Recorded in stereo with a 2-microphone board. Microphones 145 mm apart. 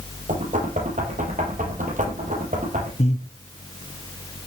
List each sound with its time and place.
0.3 s knocking: 60° right (ahead or behind), 6 m
3.0 s breathing: 50° left (ahead or behind), 1.6 m